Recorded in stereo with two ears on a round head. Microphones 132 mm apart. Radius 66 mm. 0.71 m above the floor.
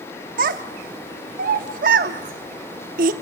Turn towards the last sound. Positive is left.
turn(degrees=-60)  # may be behind; listen again after turning